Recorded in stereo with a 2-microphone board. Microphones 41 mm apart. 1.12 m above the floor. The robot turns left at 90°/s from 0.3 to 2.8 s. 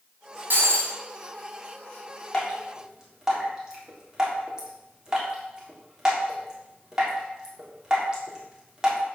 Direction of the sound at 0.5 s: 55° right.